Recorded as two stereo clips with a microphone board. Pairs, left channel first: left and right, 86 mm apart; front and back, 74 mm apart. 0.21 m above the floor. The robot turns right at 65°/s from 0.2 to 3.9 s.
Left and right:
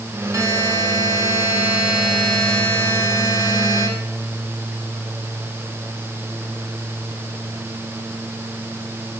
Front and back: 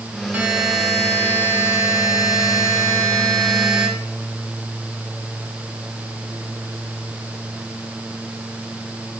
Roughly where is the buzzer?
Behind right.